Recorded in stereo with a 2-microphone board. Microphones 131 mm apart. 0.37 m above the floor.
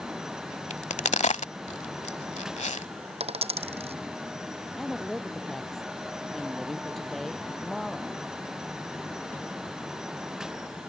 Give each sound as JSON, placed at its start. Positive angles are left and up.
{"t": 0.7, "sound": "a crack", "side_deg": 60}
{"t": 3.2, "sound": "a dropped coin", "side_deg": -50}
{"t": 4.8, "sound": "a woman speaking", "side_deg": 0}